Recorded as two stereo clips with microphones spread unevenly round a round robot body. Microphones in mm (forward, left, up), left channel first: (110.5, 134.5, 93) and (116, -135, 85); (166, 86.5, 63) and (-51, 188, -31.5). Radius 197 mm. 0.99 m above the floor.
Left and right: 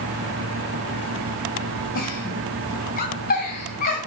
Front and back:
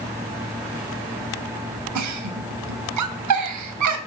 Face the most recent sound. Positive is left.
turn(degrees=160)